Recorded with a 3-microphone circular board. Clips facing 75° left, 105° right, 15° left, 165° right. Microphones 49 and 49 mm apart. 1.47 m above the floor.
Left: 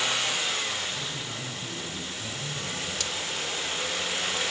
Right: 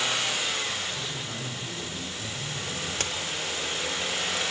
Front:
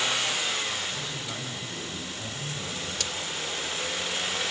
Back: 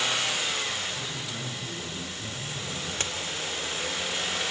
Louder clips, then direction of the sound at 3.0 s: Right 2 dB, back 3 dB; 125° right.